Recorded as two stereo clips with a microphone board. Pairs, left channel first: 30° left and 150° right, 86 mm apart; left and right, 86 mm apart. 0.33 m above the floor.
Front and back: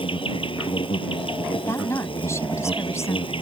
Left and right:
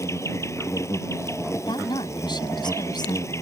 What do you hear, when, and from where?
0.0 s an insect: 35° left
1.7 s a woman speaking: 80° left